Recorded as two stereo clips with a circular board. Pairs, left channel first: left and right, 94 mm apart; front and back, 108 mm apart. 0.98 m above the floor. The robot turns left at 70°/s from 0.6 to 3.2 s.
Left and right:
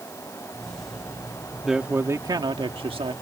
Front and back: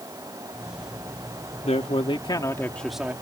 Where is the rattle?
I don't hear a rattle.